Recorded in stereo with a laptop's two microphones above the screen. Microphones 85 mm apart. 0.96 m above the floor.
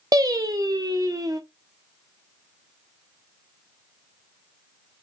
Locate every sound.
0.1 s singing: 45° right (ahead or behind), 0.7 m